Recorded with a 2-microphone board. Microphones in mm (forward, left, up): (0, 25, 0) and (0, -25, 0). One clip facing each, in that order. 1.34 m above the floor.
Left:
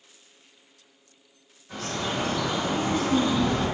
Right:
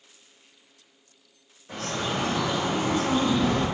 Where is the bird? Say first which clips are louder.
Right 1 dB; 65° right (ahead or behind), 1.1 m.